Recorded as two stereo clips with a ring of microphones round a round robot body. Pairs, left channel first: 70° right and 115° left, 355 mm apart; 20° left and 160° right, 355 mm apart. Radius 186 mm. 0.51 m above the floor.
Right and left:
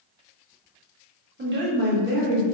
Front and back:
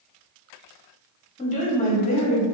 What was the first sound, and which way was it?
A woman speaking, 80° left.